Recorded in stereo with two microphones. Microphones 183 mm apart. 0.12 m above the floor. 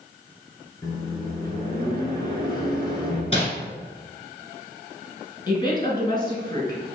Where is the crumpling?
30° left (ahead or behind), 1.3 m.